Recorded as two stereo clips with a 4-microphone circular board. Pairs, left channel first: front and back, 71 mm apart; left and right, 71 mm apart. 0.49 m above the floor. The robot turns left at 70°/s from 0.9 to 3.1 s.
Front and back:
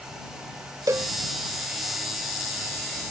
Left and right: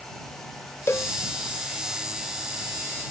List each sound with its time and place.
0.9 s a cowbell: 140° left; by 1.1 s 130° left